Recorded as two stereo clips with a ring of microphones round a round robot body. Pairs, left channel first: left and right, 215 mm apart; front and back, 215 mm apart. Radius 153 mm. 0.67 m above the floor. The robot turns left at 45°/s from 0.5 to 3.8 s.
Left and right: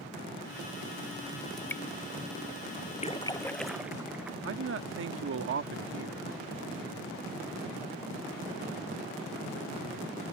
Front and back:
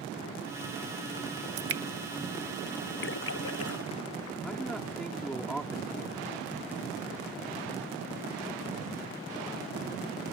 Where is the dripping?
Straight behind; by 1.8 s 170° left.